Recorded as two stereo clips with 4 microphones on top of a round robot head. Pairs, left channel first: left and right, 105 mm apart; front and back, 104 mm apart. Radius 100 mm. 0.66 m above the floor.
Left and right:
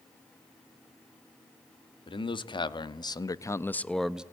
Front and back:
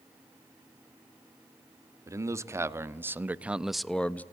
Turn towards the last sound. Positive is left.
turn(degrees=-30)